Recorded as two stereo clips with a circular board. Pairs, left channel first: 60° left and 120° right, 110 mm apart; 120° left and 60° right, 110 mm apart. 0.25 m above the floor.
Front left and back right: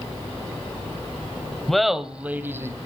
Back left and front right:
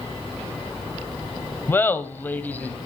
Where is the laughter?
140° left, 1.2 m; by 2.8 s 170° right, 1.5 m.